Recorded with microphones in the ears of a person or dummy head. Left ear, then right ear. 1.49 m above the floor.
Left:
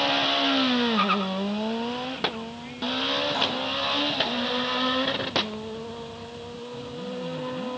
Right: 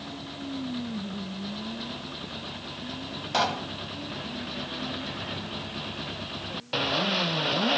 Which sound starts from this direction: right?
A pop, at 3.3 s.